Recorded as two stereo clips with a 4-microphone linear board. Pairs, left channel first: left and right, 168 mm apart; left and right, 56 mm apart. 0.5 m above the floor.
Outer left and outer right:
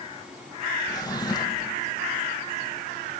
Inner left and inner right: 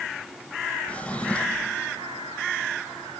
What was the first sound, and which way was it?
A drawer, 25° left (ahead or behind).